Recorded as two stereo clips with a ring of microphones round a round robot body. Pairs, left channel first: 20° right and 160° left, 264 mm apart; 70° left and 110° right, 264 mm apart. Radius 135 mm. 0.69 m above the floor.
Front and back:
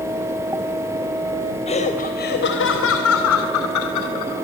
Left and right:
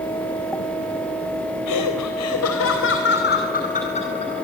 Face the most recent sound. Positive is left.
turn(degrees=-5)